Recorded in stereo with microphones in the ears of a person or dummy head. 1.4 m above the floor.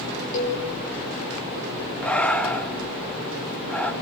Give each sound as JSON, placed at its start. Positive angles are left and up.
{"t": 0.3, "sound": "a cowbell", "side_deg": 40, "distance_m": 7.5}
{"t": 2.0, "sound": "breathing", "side_deg": 5, "distance_m": 2.0}